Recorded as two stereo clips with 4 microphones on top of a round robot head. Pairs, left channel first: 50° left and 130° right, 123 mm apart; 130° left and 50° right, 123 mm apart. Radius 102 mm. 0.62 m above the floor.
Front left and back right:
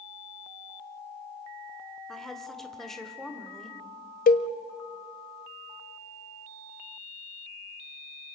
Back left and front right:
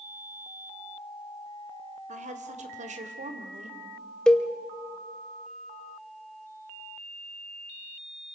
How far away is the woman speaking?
About 2 m.